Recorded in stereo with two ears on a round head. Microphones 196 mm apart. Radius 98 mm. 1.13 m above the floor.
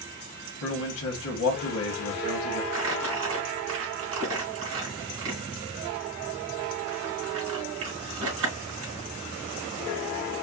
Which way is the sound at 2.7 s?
65° right (ahead or behind).